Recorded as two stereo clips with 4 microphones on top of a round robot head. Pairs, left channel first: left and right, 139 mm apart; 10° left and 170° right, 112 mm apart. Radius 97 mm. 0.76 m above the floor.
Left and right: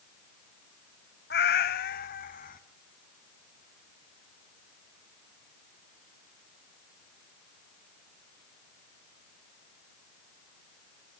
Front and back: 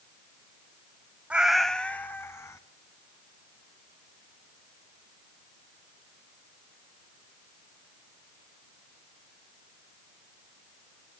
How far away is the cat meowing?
About 1.1 m.